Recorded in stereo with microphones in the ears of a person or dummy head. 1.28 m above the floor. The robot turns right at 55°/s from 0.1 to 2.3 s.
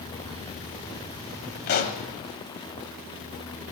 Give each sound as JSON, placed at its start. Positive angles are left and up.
{"t": 1.7, "sound": "a pop", "side_deg": 55, "distance_m": 0.8}